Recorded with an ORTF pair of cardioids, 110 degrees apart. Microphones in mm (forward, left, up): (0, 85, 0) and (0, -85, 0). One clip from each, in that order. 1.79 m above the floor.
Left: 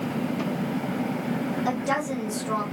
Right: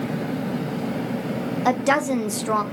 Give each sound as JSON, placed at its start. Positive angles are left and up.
{"t": 1.6, "sound": "a woman speaking", "azimuth_deg": -45, "distance_m": 0.6}